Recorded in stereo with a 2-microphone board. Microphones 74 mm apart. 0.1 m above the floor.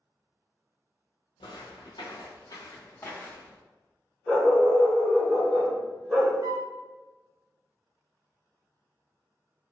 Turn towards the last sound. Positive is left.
turn(degrees=-40)  # may be behind; listen again after turning